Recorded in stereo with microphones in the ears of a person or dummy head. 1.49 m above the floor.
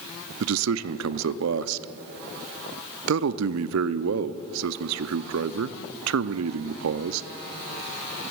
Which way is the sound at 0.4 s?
80° right.